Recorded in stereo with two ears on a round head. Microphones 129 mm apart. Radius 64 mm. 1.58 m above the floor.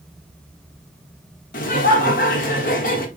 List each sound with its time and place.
1.5 s laughter: 60° left (ahead or behind), 1.1 m